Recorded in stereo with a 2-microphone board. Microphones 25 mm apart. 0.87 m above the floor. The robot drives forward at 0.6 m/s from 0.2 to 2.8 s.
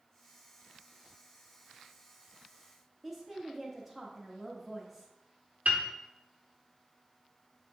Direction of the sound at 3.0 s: 5° right (ahead or behind).